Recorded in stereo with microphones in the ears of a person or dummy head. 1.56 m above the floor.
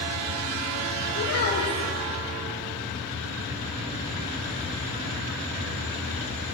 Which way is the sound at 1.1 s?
60° left (ahead or behind).